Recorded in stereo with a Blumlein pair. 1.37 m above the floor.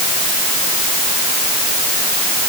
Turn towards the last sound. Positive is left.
No sound to turn to.